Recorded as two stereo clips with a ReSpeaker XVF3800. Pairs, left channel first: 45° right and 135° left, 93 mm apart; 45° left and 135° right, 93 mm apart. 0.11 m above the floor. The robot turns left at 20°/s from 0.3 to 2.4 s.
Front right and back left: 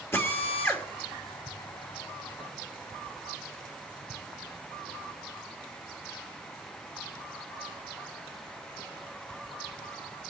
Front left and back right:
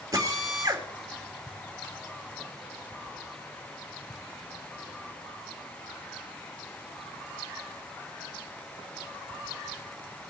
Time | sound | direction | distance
0.1 | a drill | 100° right | 2.5 m